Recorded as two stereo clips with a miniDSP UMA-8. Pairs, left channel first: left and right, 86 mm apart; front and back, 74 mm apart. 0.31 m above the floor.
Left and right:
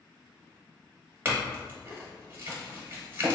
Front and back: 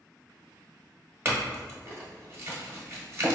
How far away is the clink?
About 1.0 m.